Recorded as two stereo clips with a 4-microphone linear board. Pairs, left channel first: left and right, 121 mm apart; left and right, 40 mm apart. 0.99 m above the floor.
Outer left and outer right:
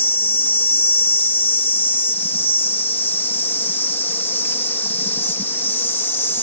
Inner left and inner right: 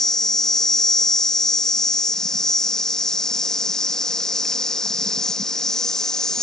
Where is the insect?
20° left (ahead or behind).